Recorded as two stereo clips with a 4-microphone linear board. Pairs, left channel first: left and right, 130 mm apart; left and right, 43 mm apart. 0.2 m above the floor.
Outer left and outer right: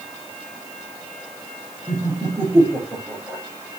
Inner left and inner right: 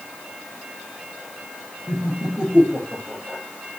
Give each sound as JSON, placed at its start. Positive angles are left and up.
{"t": 1.9, "sound": "laughter", "side_deg": -20, "distance_m": 4.5}